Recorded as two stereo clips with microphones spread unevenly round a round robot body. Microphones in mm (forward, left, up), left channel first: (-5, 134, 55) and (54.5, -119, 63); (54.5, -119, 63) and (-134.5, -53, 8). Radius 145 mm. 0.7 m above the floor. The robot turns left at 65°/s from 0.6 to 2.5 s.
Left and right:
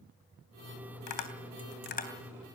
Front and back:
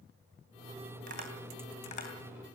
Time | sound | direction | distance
1.1 | tapping | 105° left | 3 m